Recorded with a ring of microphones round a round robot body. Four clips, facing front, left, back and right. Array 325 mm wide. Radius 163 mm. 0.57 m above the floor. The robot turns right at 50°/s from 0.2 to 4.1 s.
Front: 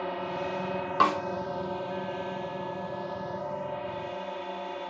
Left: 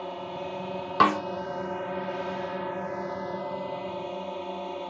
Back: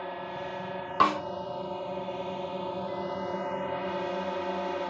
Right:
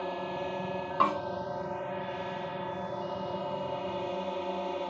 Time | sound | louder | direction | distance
0.0 | a drone | even, front 4 dB | 15° right | ?
1.0 | a snare drum | left 6 dB, even | 95° left | ?